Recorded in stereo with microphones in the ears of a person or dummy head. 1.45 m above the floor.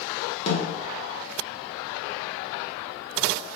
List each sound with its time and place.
0.5 s a snare drum: 35° left (ahead or behind), 0.8 m